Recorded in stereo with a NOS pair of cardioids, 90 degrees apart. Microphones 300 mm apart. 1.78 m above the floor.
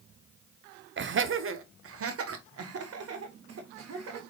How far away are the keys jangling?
No keys jangling in this recording.